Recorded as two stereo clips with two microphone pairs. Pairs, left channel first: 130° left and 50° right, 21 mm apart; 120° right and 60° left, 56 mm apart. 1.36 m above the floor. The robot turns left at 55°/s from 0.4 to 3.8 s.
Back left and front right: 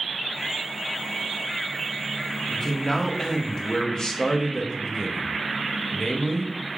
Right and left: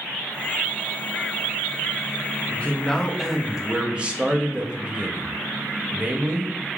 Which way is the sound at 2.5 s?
170° right.